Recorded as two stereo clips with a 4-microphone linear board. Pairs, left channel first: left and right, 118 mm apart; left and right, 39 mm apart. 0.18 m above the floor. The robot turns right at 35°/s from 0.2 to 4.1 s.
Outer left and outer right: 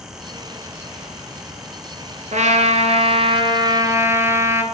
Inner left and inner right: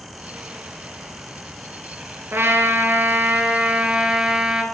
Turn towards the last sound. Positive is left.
turn(degrees=-20)